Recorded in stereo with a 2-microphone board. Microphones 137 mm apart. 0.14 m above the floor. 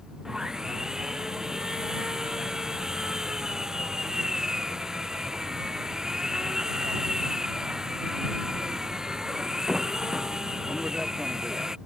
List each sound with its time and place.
0.2 s sawing: 5° right (ahead or behind)